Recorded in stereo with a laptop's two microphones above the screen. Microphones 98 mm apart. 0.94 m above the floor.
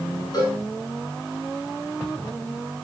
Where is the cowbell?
45° left (ahead or behind), 7 m.